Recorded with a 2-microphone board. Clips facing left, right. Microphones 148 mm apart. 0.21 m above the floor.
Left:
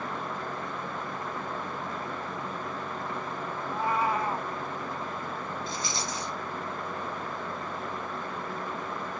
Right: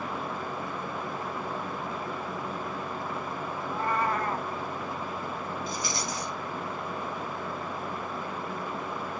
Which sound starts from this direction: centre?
A cat meowing, at 3.6 s.